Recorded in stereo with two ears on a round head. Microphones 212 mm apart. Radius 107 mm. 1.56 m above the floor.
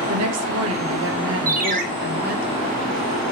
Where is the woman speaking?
70° right (ahead or behind), 1.3 m; by 2.5 s 35° right (ahead or behind), 2.0 m.